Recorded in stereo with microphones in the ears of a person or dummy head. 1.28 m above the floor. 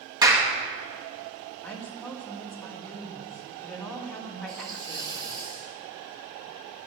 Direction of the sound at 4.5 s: 25° right (ahead or behind).